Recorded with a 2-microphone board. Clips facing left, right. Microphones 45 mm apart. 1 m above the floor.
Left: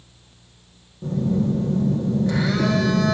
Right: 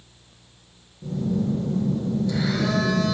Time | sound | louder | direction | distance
1.0 | a phone buzzing | left 3 dB | 60° left (ahead or behind) | 1.7 m